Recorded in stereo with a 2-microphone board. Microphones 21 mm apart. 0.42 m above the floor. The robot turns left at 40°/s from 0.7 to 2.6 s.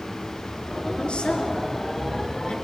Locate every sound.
1.0 s a woman speaking: 45° left (ahead or behind), 5 m; by 2.5 s 70° left (ahead or behind), 5 m